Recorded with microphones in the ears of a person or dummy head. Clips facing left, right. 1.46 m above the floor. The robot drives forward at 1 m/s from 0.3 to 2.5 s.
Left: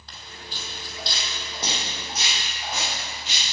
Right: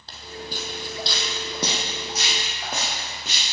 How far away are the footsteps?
About 2.5 m.